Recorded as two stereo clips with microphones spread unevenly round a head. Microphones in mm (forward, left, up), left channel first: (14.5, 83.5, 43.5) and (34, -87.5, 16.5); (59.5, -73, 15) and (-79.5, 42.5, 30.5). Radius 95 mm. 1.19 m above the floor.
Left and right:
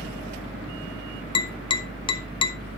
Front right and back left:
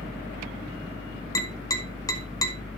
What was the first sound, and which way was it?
A fan, 40° right.